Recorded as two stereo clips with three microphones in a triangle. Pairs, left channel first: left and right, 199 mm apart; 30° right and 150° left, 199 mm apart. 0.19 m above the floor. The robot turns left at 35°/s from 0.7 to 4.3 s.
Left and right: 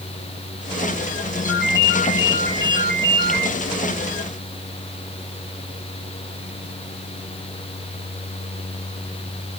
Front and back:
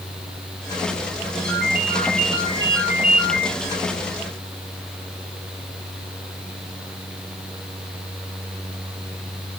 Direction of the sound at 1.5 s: 120° left.